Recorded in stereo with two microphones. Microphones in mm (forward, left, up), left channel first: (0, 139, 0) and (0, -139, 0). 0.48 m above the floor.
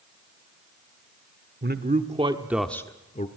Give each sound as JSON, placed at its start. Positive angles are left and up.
{"t": 1.6, "sound": "a man speaking", "side_deg": -40, "distance_m": 1.2}